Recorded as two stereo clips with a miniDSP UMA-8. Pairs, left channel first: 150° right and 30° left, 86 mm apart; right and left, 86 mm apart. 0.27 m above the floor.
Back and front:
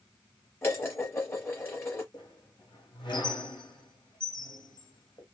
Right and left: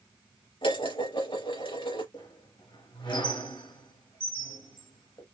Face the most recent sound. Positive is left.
turn(degrees=-115)